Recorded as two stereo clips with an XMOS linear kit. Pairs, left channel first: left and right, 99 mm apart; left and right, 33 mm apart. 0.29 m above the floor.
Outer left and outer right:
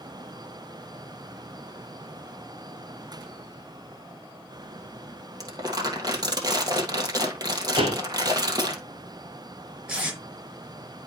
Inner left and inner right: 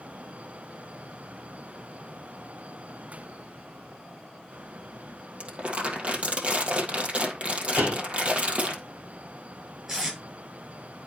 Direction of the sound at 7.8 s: 70° right (ahead or behind).